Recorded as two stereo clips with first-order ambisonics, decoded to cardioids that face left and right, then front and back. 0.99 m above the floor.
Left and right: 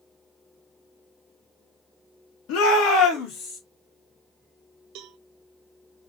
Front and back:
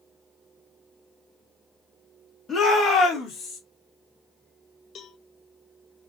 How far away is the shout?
About 1.5 m.